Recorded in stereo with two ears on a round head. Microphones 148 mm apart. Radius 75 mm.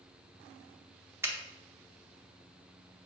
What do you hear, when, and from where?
1.2 s a finger snap: 15° right (ahead or behind), 0.6 m